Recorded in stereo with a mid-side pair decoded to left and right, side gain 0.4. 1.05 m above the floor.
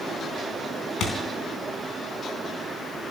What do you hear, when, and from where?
1.0 s a thud: 65° left, 4 m